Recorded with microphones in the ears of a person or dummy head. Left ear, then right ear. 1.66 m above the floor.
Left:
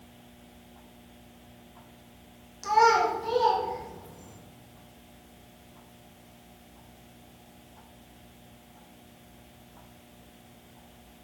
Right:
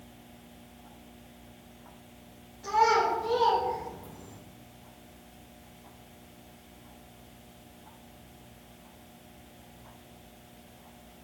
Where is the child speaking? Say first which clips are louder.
Left 3 dB; 50° left (ahead or behind), 1.1 m; by 4.4 s 50° right (ahead or behind), 1.2 m.